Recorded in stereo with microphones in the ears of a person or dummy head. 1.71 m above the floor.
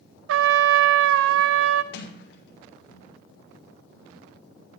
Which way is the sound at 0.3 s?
75° right (ahead or behind).